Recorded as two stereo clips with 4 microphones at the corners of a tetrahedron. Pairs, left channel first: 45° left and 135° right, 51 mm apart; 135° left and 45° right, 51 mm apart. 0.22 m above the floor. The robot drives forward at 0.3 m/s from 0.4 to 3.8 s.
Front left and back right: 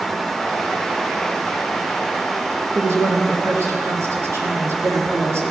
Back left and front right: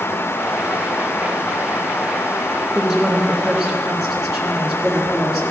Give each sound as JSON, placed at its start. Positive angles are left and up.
{"t": 2.8, "sound": "a woman speaking", "azimuth_deg": -125, "distance_m": 3.0}